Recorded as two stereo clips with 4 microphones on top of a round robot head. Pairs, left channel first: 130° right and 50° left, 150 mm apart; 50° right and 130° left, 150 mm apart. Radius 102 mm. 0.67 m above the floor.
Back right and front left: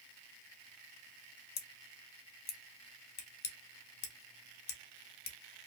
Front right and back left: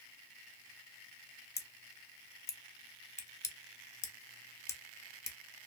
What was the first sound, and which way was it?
Scissors, 120° right.